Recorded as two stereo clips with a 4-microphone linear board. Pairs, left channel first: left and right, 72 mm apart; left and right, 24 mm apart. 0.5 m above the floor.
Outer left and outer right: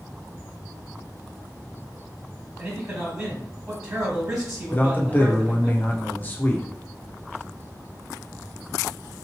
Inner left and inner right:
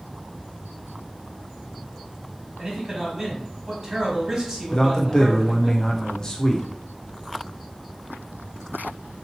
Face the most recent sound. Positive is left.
turn(degrees=25)  # may be behind; listen again after turning